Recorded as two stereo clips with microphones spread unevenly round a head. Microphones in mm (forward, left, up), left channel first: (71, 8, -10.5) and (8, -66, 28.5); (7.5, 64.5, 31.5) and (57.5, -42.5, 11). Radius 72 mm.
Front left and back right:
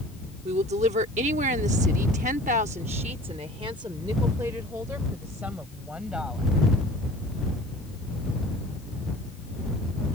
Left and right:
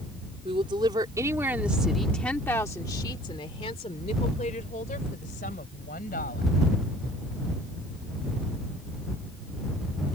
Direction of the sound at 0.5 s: 120° right.